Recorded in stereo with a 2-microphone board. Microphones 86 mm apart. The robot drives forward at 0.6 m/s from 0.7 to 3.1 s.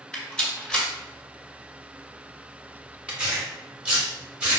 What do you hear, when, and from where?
0.1 s a rattle: 10° left (ahead or behind), 1.7 m
3.1 s tearing paper: 20° right (ahead or behind), 2.5 m